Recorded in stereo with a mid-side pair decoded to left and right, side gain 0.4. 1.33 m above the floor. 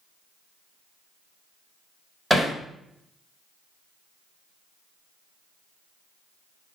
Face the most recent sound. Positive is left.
turn(degrees=-15)